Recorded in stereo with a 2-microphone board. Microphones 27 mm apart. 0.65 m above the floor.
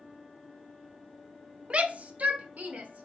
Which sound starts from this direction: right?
A shout, at 1.7 s.